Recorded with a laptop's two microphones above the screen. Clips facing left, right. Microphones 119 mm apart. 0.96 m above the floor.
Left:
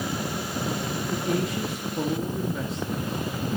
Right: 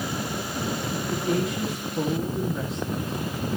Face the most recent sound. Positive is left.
turn(degrees=0)  # may be behind; listen again after turning